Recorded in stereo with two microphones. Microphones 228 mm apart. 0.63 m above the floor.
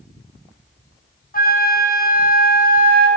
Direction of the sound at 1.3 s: 40° left (ahead or behind).